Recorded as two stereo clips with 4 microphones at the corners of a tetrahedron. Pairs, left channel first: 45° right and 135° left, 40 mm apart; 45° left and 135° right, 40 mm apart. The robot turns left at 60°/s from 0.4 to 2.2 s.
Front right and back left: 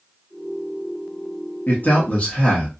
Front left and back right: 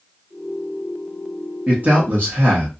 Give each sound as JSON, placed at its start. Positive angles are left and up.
{"t": 1.7, "sound": "a man speaking", "azimuth_deg": -75, "distance_m": 1.2}